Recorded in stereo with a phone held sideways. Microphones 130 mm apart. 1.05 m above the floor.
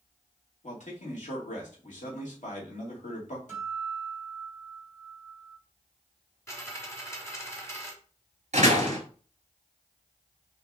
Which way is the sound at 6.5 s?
20° left (ahead or behind).